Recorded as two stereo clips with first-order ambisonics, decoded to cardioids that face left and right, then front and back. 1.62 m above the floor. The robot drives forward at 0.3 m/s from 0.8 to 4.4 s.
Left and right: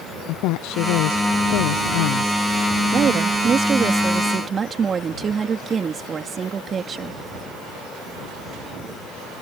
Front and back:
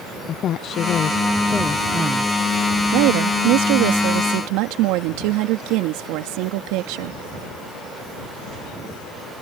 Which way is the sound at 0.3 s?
60° left.